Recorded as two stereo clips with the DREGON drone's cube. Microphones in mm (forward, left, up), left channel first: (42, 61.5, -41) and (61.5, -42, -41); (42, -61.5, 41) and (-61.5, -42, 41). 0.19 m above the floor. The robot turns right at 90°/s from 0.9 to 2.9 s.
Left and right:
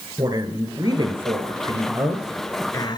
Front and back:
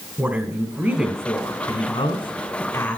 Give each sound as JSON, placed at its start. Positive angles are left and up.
{"t": 0.2, "sound": "a woman speaking", "azimuth_deg": -120, "distance_m": 2.0}